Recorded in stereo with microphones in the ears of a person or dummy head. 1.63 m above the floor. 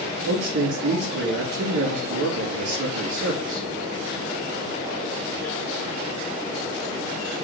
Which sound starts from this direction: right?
A man speaking, at 0.2 s.